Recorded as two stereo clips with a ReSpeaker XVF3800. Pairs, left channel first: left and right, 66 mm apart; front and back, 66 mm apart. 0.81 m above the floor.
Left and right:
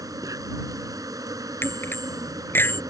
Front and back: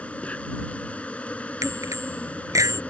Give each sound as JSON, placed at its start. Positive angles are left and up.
{"t": 0.0, "sound": "an insect", "azimuth_deg": -70}
{"t": 1.6, "sound": "a bicycle bell", "azimuth_deg": 145}